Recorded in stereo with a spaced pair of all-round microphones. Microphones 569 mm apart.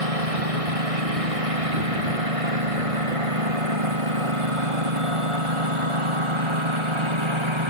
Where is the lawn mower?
75° right (ahead or behind); by 7.7 s 55° right (ahead or behind).